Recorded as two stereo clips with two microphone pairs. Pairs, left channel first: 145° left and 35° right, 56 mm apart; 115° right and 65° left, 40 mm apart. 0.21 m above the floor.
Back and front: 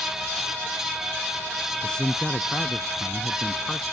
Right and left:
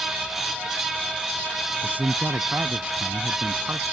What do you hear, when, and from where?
1.8 s a man speaking: 75° left